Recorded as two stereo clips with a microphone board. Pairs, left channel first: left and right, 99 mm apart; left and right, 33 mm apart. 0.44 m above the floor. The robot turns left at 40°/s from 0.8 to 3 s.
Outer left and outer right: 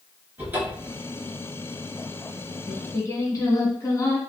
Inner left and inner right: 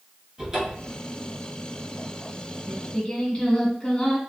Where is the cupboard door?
20° right (ahead or behind), 1.9 m; by 1.0 s 10° right (ahead or behind), 1.9 m.